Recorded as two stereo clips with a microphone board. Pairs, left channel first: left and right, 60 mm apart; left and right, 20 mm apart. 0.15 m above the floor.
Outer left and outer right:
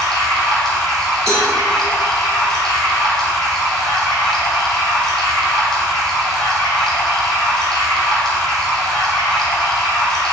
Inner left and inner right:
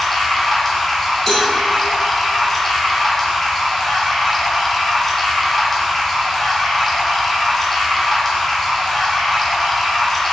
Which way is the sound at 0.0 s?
5° left (ahead or behind).